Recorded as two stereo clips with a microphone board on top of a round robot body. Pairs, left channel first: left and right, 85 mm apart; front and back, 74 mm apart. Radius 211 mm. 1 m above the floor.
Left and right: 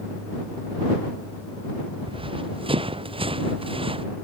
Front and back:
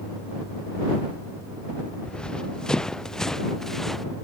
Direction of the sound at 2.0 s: 80° right.